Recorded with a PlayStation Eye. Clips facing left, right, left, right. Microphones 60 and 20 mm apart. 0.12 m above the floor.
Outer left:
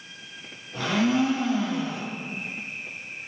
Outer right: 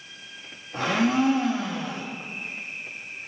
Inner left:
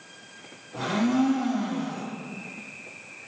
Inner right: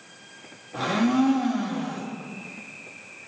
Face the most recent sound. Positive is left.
turn(degrees=-40)  # may be behind; listen again after turning